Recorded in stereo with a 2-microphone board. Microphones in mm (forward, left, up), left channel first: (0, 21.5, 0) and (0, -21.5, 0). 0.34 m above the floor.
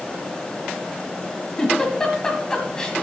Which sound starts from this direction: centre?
A giggle, at 1.6 s.